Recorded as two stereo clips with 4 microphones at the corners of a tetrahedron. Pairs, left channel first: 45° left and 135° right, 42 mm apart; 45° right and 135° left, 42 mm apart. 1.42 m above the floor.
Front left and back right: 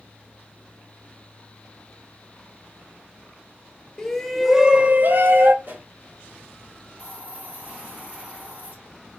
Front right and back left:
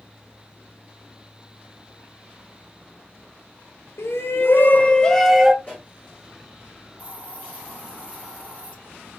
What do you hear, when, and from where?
4.0 s a shout: 30° right, 0.7 m; by 5.5 s 145° right, 0.7 m
5.6 s a pop: 95° right, 3 m
7.0 s a hiss: 100° right, 2.5 m